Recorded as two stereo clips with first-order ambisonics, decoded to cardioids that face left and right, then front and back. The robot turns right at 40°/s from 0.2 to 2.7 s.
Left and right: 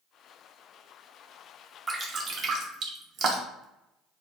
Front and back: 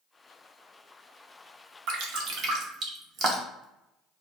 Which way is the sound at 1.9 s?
165° right.